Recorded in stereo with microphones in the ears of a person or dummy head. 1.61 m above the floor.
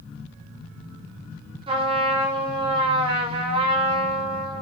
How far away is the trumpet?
About 4.5 m.